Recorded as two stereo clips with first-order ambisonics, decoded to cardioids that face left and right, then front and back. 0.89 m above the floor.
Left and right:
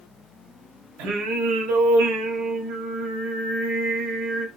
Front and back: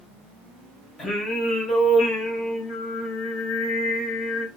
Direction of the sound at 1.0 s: 70° right.